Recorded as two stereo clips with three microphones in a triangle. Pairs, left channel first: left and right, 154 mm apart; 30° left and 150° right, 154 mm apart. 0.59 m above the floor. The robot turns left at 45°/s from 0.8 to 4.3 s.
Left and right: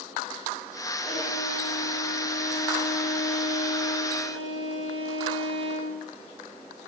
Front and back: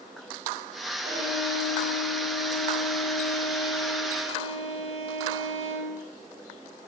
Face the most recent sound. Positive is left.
turn(degrees=70)